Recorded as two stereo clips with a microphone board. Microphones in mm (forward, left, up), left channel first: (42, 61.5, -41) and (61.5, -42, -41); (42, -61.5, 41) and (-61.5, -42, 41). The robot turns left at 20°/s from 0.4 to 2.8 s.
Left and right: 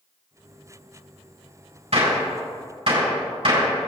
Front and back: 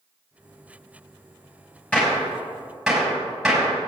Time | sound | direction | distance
1.9 | a gunshot | 85° right | 3.5 m